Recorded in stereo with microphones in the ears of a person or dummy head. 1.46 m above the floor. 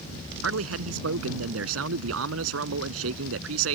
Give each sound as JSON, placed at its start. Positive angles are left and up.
{"t": 0.4, "sound": "a man speaking", "side_deg": -90}